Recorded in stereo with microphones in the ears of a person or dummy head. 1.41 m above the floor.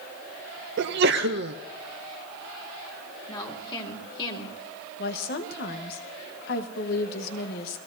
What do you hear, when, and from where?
0.8 s a sneeze: 55° right (ahead or behind), 0.6 m
3.3 s a woman speaking: 25° left (ahead or behind), 2.5 m
5.0 s a woman speaking: 60° left (ahead or behind), 1.2 m